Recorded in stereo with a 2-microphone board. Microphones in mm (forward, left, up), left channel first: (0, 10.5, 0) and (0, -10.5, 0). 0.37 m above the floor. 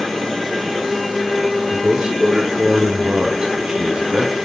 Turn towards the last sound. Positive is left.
turn(degrees=-30)  # may be behind; listen again after turning